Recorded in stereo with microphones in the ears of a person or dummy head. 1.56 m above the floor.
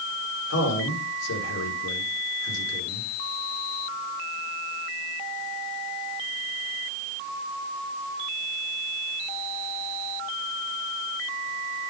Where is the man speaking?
85° left, 5.5 m.